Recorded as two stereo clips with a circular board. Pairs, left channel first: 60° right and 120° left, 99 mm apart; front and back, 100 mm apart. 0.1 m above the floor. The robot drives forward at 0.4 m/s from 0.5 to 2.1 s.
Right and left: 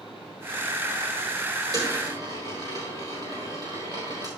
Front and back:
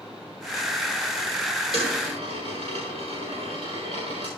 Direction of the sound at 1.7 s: 165° left.